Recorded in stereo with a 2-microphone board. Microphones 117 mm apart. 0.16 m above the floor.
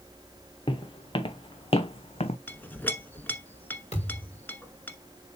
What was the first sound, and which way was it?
Footsteps, 45° left (ahead or behind).